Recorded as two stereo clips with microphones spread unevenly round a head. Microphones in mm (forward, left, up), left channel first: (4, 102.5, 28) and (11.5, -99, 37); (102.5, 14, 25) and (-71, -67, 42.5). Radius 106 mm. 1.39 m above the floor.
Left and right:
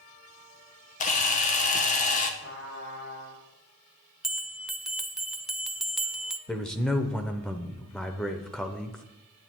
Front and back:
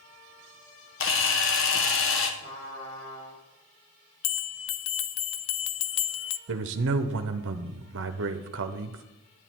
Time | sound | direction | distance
1.0 | a camera shutter | 40° left | 1.2 m
2.4 | a trumpet | 60° left | 6.5 m
4.2 | a bell | straight ahead | 0.6 m
6.5 | a man speaking | straight behind | 0.7 m